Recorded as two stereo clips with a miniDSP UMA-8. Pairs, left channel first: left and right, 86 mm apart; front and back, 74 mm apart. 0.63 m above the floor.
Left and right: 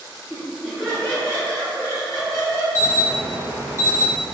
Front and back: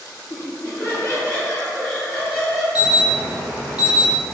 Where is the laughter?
5° left, 1.7 m; by 2.6 s 95° left, 1.4 m.